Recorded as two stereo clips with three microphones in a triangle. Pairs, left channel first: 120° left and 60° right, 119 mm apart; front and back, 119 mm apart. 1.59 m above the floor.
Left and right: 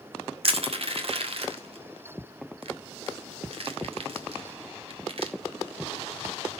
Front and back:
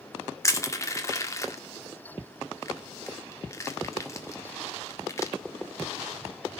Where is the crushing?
60° right, 1.6 m.